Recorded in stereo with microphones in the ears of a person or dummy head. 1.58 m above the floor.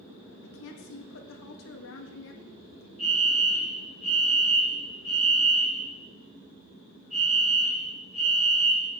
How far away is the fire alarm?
About 6.5 m.